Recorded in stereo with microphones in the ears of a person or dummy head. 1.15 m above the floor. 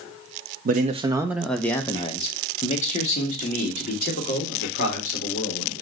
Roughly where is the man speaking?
Right.